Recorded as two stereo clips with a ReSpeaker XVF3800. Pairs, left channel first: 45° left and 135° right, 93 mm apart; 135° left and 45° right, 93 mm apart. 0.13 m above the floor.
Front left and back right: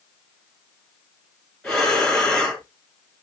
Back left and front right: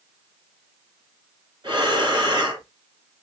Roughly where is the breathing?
Ahead right.